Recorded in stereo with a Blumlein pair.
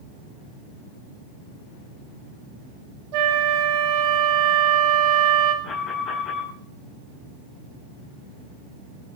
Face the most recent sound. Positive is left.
turn(degrees=25)